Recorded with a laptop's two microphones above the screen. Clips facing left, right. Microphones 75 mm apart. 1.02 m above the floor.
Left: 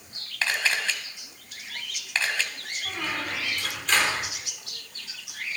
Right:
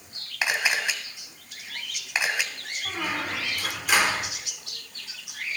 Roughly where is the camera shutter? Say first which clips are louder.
Right 1 dB; centre.